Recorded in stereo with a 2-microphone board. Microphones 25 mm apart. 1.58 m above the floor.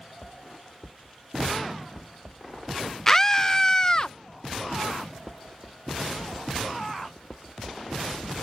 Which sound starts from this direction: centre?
A scream, at 3.1 s.